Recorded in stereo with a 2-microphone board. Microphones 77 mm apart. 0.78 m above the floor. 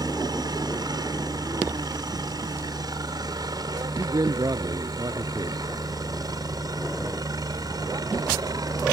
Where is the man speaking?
55° right (ahead or behind).